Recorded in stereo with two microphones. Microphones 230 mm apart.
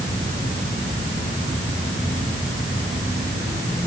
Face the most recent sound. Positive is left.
No sound to turn to.